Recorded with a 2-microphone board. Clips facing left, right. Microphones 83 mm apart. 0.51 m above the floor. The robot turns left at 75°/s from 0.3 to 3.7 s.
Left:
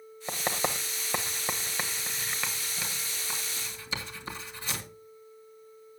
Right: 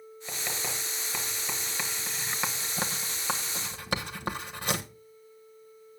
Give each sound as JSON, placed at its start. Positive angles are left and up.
{"t": 0.3, "sound": "writing", "side_deg": 35, "distance_m": 1.6}